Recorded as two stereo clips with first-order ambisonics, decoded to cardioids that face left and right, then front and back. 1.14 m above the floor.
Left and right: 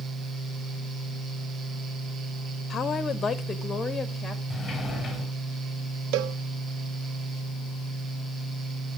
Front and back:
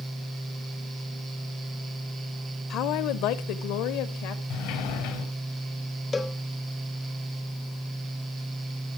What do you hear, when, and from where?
2.7 s a woman speaking: 30° left, 0.9 m; by 4.4 s 5° left, 2.5 m
4.5 s a sliding door: 5° left, 3.5 m
6.1 s a cowbell: 75° right, 0.8 m